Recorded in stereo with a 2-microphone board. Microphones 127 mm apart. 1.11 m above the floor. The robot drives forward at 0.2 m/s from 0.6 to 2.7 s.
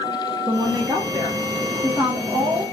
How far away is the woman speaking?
About 0.7 m.